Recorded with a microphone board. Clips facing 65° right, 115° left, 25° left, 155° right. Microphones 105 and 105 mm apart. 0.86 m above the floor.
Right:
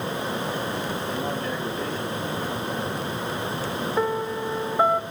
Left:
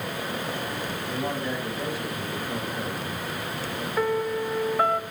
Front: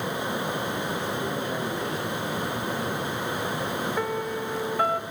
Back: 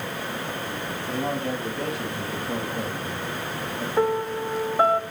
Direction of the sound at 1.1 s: 170° right.